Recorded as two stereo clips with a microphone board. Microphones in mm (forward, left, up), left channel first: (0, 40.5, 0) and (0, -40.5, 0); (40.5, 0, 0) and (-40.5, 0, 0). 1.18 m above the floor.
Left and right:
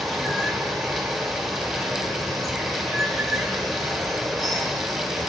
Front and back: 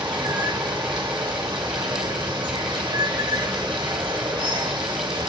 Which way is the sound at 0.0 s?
Straight behind.